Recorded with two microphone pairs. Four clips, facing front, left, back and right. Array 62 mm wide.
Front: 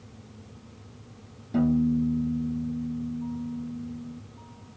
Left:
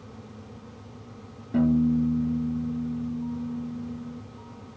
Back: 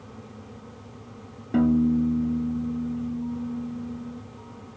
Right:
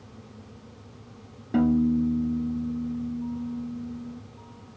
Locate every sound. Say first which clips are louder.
1.5 s a piano: even, back 3 dB; 155° right, 0.6 m